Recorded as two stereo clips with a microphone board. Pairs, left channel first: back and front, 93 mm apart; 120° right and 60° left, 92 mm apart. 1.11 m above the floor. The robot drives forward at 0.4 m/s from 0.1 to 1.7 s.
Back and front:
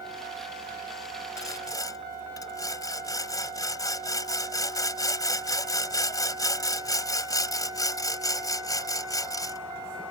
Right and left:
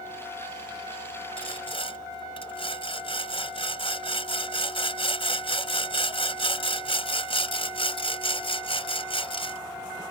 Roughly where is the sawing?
Behind right.